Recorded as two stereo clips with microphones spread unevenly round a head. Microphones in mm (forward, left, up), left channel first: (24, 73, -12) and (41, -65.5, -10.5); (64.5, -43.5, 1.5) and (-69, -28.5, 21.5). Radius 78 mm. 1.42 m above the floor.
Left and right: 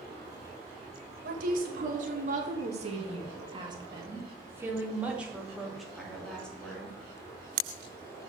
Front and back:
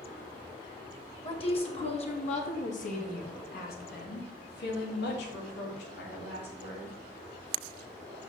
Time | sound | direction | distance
1.2 | a woman speaking | 60° right | 2.5 m